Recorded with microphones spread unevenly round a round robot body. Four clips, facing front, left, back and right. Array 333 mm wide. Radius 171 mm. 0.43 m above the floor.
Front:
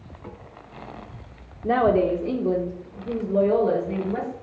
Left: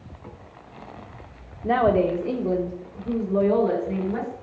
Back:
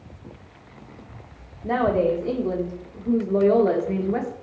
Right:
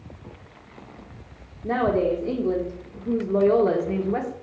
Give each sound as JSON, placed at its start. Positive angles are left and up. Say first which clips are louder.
{"t": 1.6, "sound": "a woman speaking", "louder": "left 2 dB, front 1 dB", "azimuth_deg": 25, "distance_m": 1.3}